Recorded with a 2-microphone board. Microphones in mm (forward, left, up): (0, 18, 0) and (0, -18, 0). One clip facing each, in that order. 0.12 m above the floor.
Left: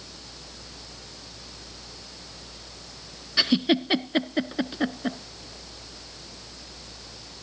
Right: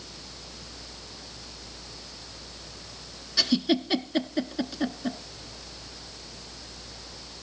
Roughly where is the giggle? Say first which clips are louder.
Left 2 dB; left.